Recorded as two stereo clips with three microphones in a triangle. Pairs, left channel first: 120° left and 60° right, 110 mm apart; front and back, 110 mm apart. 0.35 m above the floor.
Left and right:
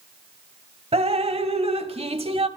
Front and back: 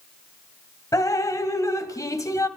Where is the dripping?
55° right, 1.0 m.